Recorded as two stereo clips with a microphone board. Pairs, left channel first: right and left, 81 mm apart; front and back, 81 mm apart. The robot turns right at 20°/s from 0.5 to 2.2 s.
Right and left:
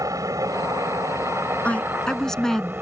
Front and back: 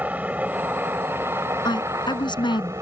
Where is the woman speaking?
15° right; by 2.7 s 5° right.